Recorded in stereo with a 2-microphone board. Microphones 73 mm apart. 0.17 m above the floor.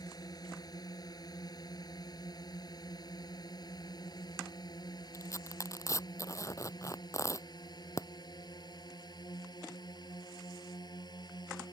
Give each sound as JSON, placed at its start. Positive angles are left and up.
{"t": 0.0, "sound": "a drone", "side_deg": 60}
{"t": 5.1, "sound": "tearing paper", "side_deg": 45}